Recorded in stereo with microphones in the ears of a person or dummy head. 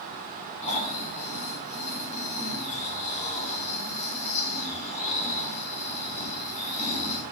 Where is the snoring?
35° left (ahead or behind), 3 m.